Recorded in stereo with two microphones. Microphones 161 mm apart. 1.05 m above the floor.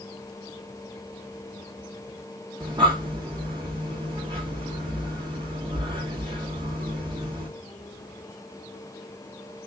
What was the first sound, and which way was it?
Breathing, 30° right (ahead or behind).